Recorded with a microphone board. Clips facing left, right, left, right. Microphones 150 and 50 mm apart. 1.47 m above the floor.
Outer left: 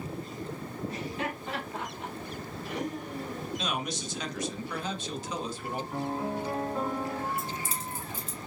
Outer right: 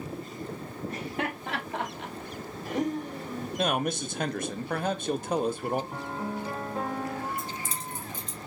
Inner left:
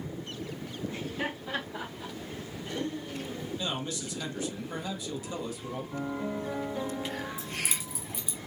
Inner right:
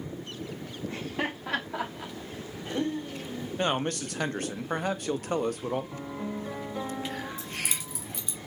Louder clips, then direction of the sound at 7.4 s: Outer left 1 dB, even; 5° left (ahead or behind).